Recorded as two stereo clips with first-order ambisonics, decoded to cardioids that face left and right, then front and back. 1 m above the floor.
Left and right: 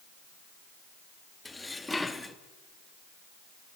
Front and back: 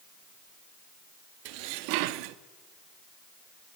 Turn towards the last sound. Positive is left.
turn(degrees=175)